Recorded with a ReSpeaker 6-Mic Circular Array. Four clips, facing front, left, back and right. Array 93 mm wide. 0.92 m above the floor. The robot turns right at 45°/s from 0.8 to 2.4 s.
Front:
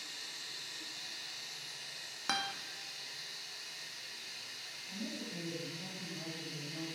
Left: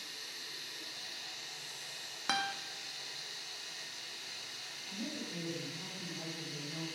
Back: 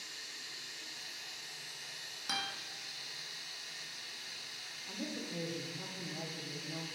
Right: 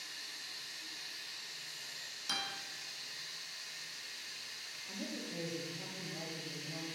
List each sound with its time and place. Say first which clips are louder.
0.0 s running water: left 1 dB, front 1 dB; 45° left, 2.5 m; by 7.0 s 115° left, 2.5 m
2.3 s a guitar: left 8 dB, front 4 dB; 60° left, 1.1 m; by 2.5 s 65° left, 1.1 m
4.8 s a woman speaking: left 1 dB, back 1 dB; 175° right, 2.5 m